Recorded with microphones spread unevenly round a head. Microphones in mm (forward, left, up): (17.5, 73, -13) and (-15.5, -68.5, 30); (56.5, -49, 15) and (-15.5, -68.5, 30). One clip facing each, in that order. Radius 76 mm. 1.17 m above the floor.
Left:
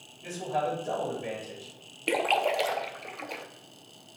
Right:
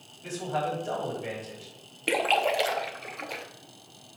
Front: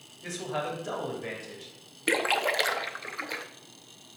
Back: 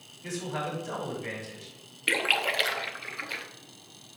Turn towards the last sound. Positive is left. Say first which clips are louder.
# right 1 dB, front 2 dB
turn(degrees=-45)